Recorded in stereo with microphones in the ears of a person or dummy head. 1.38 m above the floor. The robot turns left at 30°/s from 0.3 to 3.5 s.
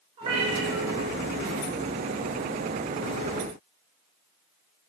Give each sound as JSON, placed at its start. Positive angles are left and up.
{"t": 0.2, "sound": "a cat meowing", "side_deg": -30, "distance_m": 3.0}